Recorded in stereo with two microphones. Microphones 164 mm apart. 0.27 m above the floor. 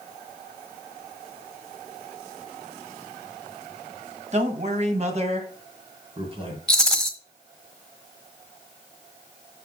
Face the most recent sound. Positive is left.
turn(degrees=5)  # may be behind; listen again after turning